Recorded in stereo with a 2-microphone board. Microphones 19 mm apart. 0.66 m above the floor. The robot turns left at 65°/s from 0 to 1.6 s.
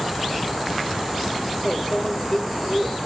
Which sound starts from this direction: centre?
A microwave, at 1.6 s.